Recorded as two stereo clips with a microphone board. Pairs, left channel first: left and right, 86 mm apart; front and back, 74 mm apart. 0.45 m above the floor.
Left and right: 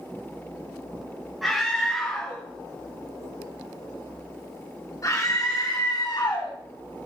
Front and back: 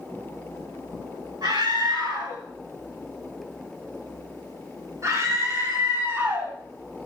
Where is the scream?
Straight behind, 3 m; by 6.5 s 115° left, 3.5 m.